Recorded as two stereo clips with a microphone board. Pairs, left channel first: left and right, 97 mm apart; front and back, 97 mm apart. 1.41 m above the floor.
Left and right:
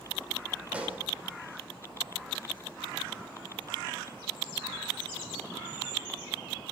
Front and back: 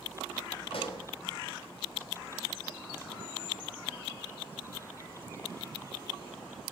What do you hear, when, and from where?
0.7 s a pop: 10° right, 2.5 m